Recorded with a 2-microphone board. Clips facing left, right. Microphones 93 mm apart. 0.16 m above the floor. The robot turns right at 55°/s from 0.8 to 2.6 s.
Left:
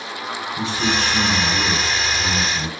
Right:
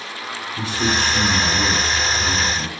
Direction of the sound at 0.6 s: 5° right (ahead or behind).